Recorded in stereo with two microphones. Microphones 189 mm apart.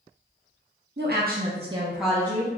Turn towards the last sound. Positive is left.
turn(degrees=20)  # may be behind; listen again after turning